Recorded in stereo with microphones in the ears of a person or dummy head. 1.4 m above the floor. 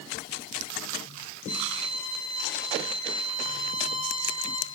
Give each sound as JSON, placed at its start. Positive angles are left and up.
{"t": 1.5, "sound": "a violin", "side_deg": 45, "distance_m": 4.5}